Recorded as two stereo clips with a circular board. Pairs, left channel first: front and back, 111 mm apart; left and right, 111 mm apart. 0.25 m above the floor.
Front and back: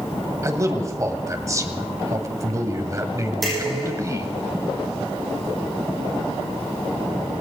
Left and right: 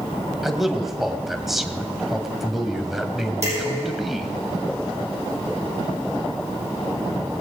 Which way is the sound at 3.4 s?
90° right.